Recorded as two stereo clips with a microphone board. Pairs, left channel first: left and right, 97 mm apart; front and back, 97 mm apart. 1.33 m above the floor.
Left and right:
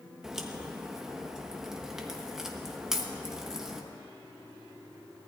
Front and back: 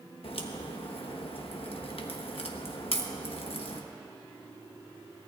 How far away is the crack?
About 1.2 m.